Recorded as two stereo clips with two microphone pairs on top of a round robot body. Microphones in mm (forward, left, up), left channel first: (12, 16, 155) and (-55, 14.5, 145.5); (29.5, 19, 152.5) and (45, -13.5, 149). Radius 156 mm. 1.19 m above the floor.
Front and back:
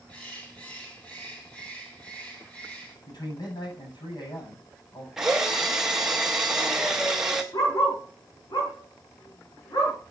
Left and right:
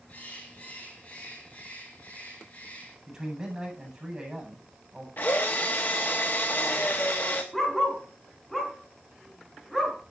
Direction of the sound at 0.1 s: 75° left.